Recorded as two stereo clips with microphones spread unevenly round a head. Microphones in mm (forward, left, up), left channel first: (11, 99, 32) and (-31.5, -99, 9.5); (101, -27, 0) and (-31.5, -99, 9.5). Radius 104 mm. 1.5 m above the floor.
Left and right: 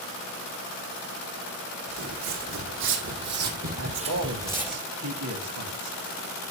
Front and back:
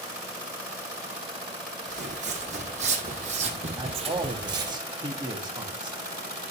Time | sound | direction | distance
1.9 | footsteps | 120° right | 3.5 m
3.8 | a man speaking | 90° right | 2.5 m